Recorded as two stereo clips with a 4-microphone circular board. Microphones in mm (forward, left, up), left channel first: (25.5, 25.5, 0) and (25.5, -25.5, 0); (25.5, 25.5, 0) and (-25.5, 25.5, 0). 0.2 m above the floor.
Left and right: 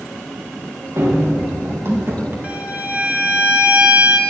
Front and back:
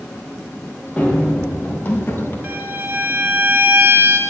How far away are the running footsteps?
About 5 m.